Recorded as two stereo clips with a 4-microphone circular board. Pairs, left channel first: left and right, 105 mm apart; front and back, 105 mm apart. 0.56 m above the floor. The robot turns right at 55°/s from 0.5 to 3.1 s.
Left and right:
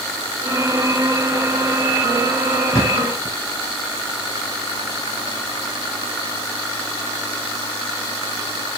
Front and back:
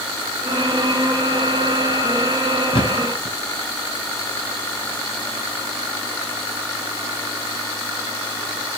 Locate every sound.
2.7 s a thud: 35° left, 5 m; by 3.4 s 55° left, 5 m